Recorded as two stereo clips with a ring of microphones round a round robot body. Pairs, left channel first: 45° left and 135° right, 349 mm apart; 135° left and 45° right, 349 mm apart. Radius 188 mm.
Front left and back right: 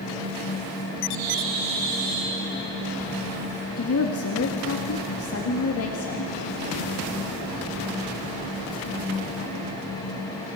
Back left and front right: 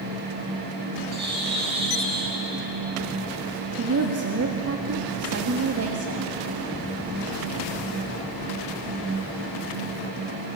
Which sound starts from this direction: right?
A bird, at 1.1 s.